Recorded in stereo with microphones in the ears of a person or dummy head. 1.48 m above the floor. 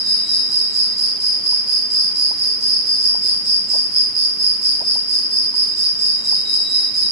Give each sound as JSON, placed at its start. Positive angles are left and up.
{"t": 0.0, "sound": "an insect", "side_deg": 0, "distance_m": 1.4}